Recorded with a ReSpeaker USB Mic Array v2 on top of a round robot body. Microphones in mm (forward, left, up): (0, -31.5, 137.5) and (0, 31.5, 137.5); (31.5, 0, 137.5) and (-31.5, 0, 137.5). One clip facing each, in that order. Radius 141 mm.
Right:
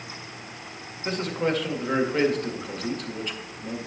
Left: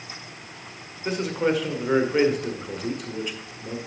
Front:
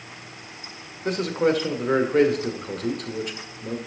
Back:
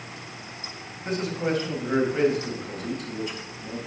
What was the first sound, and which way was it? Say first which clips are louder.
A man speaking: left 2 dB, front 5 dB; 10° left.